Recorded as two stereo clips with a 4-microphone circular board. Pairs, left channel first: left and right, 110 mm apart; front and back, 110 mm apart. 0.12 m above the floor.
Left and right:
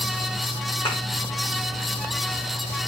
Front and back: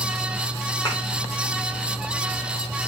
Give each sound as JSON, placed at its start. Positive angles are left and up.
{"t": 0.8, "sound": "a thud", "azimuth_deg": 55, "distance_m": 4.5}